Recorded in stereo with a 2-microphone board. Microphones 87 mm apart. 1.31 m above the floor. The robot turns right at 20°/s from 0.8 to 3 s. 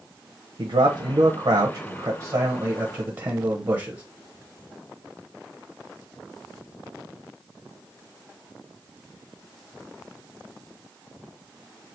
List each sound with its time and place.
0.6 s a man speaking: 85° right, 0.8 m; by 4.0 s 40° right, 0.8 m